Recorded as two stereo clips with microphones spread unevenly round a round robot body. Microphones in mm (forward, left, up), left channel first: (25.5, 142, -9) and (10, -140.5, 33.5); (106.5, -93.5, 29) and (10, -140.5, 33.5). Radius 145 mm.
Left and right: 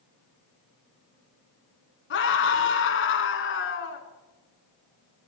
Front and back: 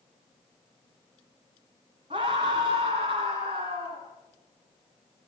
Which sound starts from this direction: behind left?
A scream, at 2.1 s.